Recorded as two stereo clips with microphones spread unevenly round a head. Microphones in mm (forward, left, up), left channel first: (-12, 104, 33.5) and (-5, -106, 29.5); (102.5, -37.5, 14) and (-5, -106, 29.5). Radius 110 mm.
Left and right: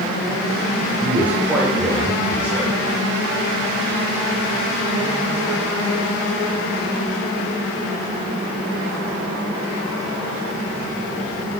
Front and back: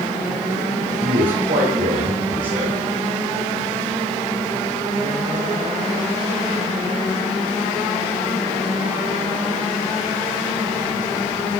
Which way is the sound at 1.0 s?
170° right.